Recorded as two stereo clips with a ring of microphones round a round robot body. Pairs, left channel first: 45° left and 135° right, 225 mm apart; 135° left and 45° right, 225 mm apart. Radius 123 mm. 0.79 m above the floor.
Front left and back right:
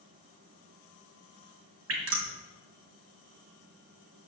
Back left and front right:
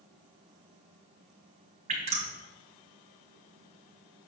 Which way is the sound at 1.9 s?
110° right.